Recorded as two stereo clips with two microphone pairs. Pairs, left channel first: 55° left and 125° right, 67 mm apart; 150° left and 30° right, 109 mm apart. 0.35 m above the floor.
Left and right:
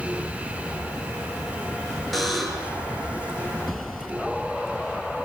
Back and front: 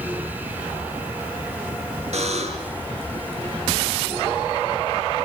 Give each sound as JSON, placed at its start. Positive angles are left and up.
{"t": 2.1, "sound": "a buzzer", "azimuth_deg": -30, "distance_m": 4.5}